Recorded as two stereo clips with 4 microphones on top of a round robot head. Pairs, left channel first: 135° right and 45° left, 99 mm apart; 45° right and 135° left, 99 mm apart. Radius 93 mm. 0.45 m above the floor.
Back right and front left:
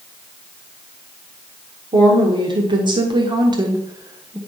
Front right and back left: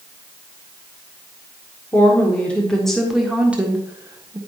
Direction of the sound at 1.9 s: 20° left.